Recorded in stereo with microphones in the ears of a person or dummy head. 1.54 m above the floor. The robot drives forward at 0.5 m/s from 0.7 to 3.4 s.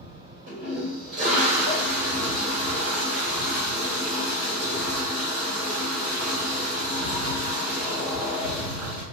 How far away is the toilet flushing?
About 1.9 m.